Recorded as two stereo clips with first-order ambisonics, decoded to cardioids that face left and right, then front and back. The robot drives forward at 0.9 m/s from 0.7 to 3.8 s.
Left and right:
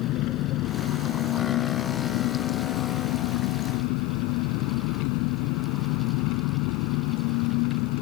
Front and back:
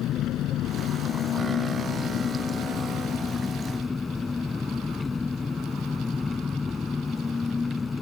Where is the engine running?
50° left; by 8.0 s 75° left.